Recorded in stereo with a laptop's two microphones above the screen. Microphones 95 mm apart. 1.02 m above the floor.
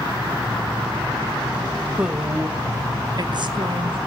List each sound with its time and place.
2.0 s a woman speaking: 10° right (ahead or behind), 1.0 m; by 4.0 s 65° right (ahead or behind), 1.1 m